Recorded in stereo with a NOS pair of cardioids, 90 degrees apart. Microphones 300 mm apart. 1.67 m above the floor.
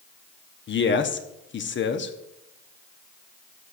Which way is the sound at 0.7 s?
40° left.